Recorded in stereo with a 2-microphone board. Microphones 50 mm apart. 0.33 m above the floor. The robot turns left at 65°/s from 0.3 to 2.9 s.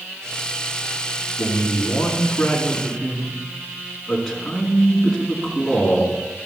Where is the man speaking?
100° left, 4 m; by 6.1 s straight ahead, 4 m.